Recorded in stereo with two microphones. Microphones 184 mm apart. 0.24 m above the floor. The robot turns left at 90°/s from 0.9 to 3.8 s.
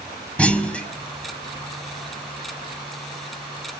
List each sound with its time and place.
0.4 s a clunk: 5° left (ahead or behind), 1.0 m